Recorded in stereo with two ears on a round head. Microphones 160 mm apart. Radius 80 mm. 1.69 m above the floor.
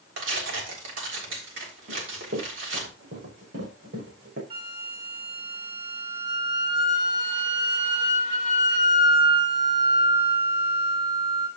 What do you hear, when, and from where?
0.2 s tearing paper: 75° right (ahead or behind), 3.5 m
1.9 s running footsteps: 70° right (ahead or behind), 4.5 m
4.5 s a flute: 30° right (ahead or behind), 5 m